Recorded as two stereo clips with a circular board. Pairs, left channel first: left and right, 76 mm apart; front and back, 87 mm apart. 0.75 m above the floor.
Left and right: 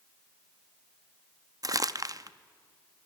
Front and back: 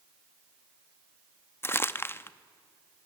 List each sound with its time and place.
1.6 s crumpling: 60° right, 0.6 m